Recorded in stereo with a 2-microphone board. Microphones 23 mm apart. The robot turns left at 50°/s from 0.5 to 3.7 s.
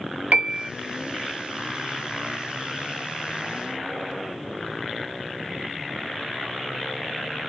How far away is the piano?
About 0.5 m.